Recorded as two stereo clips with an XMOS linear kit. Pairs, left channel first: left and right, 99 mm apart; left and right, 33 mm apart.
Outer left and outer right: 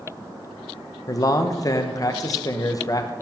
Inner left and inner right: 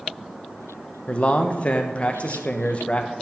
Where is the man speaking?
35° left (ahead or behind), 0.5 m.